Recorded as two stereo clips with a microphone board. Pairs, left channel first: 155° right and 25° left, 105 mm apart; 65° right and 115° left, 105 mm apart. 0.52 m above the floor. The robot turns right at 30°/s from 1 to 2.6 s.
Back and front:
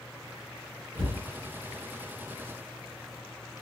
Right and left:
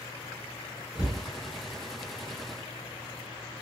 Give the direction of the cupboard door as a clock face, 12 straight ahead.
11 o'clock.